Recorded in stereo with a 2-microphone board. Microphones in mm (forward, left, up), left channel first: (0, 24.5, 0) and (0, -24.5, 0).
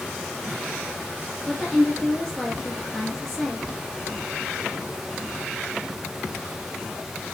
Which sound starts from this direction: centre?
A woman speaking, at 1.5 s.